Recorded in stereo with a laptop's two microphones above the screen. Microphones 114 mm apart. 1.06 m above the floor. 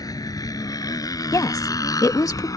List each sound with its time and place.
0.0 s a motorcycle: 35° left (ahead or behind); by 2.6 s 30° left (ahead or behind)
1.3 s a woman speaking: 30° left (ahead or behind)